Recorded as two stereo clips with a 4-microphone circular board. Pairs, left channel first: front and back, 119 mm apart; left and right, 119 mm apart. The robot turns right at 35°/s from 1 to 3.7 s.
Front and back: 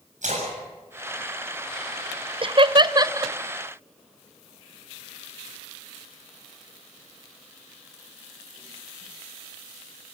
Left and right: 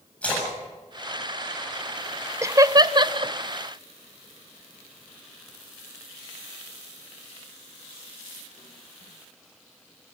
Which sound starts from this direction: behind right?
Laughter, at 2.4 s.